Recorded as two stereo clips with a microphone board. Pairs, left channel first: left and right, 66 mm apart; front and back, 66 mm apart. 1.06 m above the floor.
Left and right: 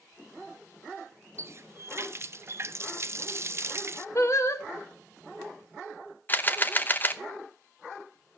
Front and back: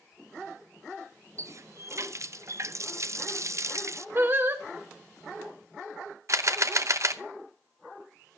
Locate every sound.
1.4 s a running tap: 135° right, 0.5 m
4.2 s singing: 130° left, 1.4 m
6.3 s a camera shutter: 145° left, 0.8 m